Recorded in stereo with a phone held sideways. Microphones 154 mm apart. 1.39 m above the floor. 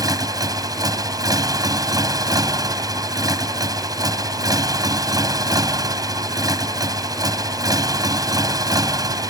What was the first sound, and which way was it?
A motorcycle, 20° right (ahead or behind).